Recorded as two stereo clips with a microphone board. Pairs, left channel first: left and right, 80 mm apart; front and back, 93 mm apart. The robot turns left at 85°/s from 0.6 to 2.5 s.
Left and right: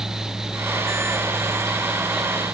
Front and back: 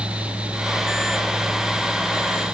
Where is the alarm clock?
I don't hear an alarm clock.